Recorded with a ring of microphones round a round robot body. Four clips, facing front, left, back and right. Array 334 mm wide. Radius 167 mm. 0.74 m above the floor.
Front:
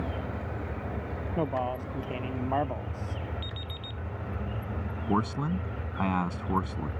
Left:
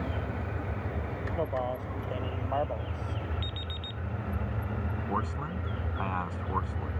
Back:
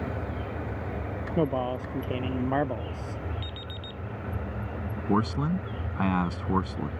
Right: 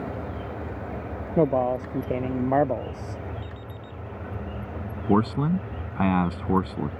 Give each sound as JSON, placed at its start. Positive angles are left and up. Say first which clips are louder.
{"t": 1.4, "sound": "a man speaking", "louder": "right 11 dB, back 3 dB", "azimuth_deg": -105}
{"t": 3.4, "sound": "an alarm clock", "louder": "right 1 dB, back 1 dB", "azimuth_deg": 100}
{"t": 5.1, "sound": "a man speaking", "louder": "right 13 dB, back 2 dB", "azimuth_deg": -95}